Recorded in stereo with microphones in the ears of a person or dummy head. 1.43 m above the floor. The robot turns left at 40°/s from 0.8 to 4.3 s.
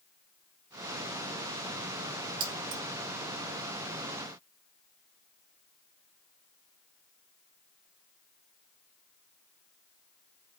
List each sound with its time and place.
2.4 s keys jangling: 50° right (ahead or behind), 0.9 m; by 2.8 s 60° right (ahead or behind), 0.9 m